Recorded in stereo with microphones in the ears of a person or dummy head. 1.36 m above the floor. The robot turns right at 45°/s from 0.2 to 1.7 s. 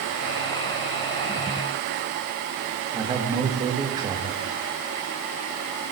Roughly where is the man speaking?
Centre.